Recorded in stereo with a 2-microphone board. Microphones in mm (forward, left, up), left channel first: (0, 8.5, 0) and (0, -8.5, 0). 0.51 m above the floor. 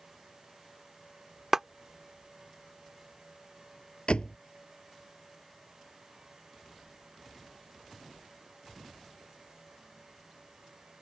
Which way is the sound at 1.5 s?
25° right (ahead or behind).